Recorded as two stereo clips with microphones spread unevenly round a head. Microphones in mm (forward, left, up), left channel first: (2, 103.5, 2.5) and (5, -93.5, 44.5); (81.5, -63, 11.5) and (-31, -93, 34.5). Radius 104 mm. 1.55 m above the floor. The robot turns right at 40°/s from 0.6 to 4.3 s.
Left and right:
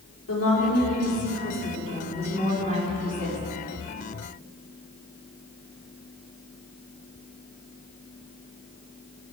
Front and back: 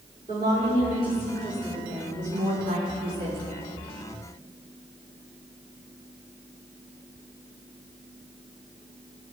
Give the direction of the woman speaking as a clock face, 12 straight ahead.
10 o'clock.